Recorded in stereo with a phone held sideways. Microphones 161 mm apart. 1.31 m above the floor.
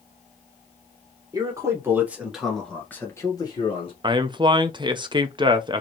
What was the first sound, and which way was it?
A man speaking, 25° right (ahead or behind).